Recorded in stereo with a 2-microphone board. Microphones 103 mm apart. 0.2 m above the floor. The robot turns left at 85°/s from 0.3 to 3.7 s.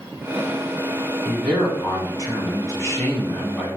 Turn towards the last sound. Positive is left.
turn(degrees=-20)